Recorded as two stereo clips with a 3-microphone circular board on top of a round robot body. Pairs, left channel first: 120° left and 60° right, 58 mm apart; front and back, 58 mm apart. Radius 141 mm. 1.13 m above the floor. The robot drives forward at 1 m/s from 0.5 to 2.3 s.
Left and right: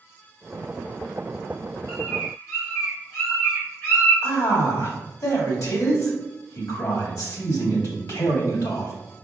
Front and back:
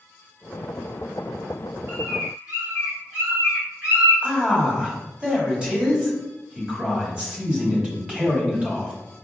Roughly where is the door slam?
No door slam in this recording.